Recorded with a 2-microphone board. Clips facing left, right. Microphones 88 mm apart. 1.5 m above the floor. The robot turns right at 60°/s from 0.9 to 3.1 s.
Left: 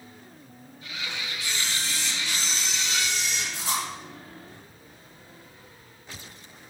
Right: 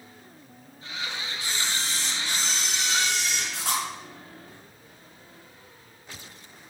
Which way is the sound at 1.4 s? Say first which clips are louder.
Right 1 dB; straight behind.